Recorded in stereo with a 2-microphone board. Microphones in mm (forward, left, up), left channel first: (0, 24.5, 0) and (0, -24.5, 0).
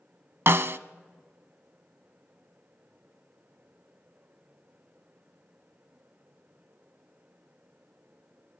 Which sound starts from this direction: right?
A snare drum, at 0.5 s.